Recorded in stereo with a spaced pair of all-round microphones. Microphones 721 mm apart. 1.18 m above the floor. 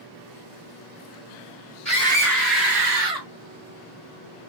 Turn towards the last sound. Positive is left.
turn(degrees=-65)  # may be behind; listen again after turning